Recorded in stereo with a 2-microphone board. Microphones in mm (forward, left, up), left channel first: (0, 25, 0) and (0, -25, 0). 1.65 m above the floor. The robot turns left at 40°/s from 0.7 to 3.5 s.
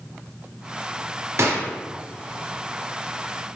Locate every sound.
1.4 s a gunshot: 60° right (ahead or behind), 0.6 m; by 1.7 s 50° right (ahead or behind), 0.6 m